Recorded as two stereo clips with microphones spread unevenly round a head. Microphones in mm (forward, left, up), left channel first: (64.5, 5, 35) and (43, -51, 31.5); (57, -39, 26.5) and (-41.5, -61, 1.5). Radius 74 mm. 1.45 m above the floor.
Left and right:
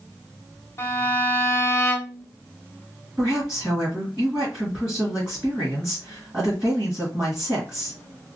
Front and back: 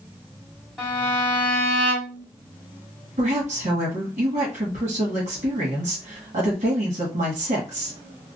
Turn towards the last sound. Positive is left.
turn(degrees=180)